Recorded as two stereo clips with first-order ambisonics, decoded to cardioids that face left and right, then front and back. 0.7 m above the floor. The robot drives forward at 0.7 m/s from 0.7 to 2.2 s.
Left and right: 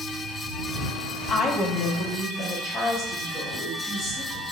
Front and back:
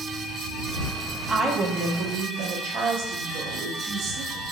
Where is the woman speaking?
110° left, 0.8 m; by 4.4 s 155° left, 1.1 m.